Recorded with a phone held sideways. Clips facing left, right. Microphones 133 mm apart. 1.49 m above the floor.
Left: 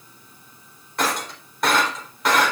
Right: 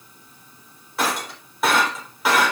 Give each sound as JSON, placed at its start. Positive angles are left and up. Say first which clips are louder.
{"t": 1.0, "sound": "breaking glass", "louder": "even", "side_deg": -5, "distance_m": 3.5}